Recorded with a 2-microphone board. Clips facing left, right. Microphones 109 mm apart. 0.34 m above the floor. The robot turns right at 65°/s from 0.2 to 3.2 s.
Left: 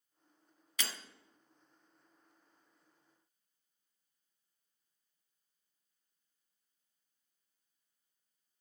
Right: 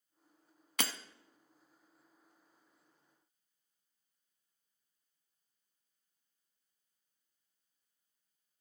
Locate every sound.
0.8 s breaking glass: 60° right (ahead or behind), 0.7 m; by 0.9 s 50° right (ahead or behind), 0.7 m